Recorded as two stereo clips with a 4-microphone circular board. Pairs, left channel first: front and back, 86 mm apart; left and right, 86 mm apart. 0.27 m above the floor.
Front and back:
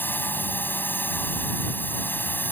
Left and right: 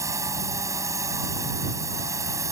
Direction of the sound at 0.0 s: 60° right.